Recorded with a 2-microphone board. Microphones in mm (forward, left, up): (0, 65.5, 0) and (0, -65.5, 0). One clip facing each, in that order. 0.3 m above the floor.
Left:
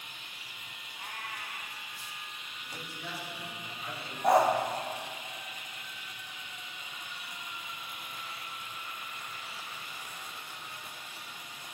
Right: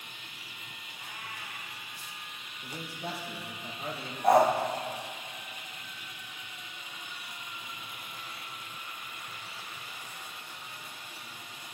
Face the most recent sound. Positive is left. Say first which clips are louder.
# right 2 dB
turn(degrees=0)  # may be behind; listen again after turning